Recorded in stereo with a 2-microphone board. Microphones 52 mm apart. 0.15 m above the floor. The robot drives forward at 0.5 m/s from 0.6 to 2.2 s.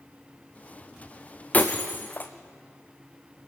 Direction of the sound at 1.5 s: 30° left (ahead or behind).